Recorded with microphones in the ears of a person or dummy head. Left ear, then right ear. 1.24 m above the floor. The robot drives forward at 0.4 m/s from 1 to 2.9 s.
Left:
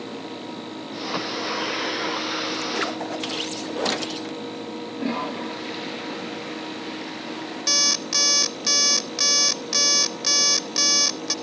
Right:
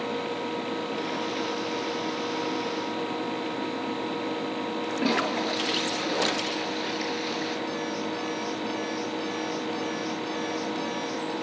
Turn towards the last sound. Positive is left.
turn(degrees=60)  # may be behind; listen again after turning